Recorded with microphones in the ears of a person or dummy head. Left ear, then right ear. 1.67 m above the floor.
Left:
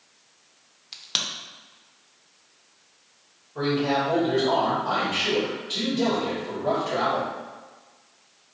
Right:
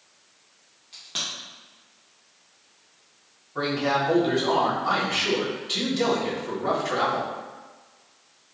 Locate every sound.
0.9 s a crack: 45° left (ahead or behind), 0.7 m
3.5 s a man speaking: 60° right (ahead or behind), 2.0 m